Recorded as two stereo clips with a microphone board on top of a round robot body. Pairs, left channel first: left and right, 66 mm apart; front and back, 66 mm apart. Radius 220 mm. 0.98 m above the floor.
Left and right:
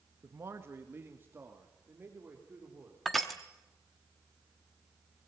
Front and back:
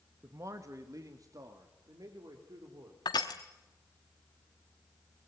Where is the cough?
No cough in this recording.